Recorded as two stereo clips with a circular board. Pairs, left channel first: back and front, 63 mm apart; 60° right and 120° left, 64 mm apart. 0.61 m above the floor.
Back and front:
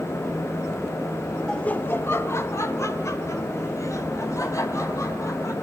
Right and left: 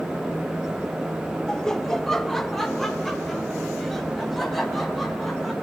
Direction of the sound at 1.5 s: 115° right.